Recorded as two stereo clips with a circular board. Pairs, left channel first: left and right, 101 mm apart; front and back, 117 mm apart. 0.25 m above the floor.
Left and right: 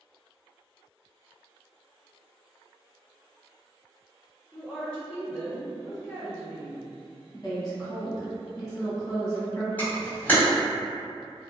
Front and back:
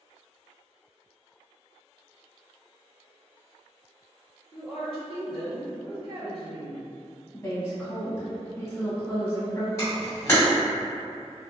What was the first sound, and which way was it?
A woman speaking, 145° left.